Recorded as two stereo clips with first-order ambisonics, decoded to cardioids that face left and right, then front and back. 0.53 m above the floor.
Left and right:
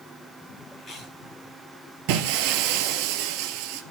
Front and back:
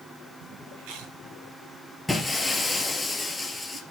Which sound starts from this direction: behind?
Chewing, at 0.8 s.